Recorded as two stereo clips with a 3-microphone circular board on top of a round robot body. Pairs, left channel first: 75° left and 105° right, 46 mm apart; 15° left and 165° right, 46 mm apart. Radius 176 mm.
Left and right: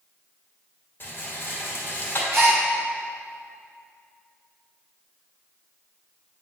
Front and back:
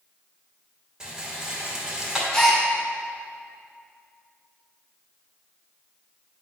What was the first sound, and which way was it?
A rattle, 120° left.